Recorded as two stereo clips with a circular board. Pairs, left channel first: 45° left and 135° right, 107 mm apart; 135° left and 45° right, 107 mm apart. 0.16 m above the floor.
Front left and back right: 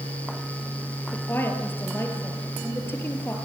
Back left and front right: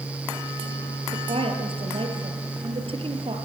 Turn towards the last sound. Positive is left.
turn(degrees=-25)